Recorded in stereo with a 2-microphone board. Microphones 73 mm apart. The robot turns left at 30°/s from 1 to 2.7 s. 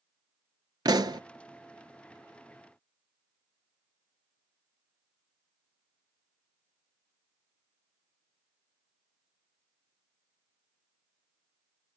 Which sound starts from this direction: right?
A pop, at 0.8 s.